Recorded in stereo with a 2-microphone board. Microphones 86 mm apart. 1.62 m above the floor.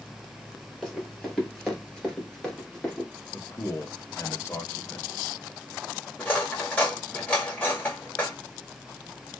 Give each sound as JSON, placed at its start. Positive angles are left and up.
{"t": 0.8, "sound": "running footsteps", "side_deg": 5, "distance_m": 2.0}
{"t": 3.3, "sound": "a man speaking", "side_deg": 30, "distance_m": 0.8}
{"t": 6.2, "sound": "cutlery clinking", "side_deg": 20, "distance_m": 1.6}